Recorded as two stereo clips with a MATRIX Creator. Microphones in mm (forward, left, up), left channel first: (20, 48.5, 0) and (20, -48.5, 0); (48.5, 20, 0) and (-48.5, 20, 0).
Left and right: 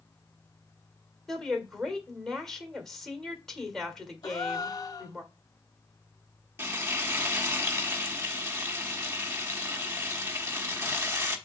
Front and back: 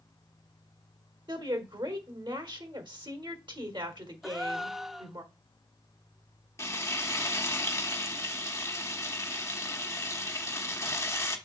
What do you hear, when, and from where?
1.3 s a woman speaking: 175° left, 1.7 m
4.2 s a gasp: 95° left, 0.5 m
6.6 s frying: 40° right, 1.0 m